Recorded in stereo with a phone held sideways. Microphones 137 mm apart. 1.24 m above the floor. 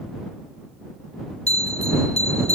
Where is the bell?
50° left (ahead or behind).